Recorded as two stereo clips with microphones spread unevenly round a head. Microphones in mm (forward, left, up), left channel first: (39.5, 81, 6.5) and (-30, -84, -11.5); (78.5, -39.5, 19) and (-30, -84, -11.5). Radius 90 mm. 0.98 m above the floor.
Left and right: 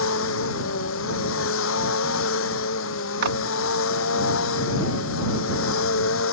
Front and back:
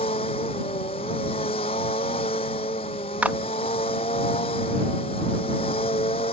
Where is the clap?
80° right.